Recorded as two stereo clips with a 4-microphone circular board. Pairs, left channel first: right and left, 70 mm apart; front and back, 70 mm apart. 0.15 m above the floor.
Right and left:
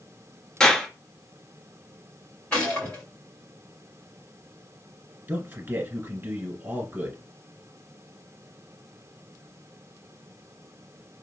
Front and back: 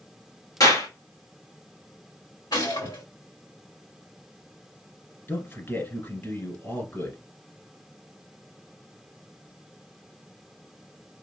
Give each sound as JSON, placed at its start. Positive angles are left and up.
{"t": 0.6, "sound": "a clap", "azimuth_deg": -15, "distance_m": 1.8}
{"t": 2.5, "sound": "a gunshot", "azimuth_deg": -15, "distance_m": 2.0}
{"t": 5.3, "sound": "a man speaking", "azimuth_deg": 40, "distance_m": 1.5}